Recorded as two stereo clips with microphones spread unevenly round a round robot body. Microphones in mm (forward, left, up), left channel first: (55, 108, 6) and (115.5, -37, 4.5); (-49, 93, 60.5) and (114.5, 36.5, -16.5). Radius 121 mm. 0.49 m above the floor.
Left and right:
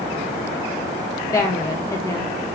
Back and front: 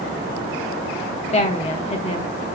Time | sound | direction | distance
1.3 | a woman speaking | 100° left | 0.7 m